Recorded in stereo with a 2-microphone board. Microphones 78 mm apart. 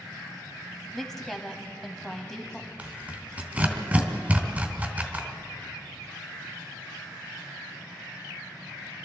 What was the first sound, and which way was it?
A woman speaking, 5° left (ahead or behind).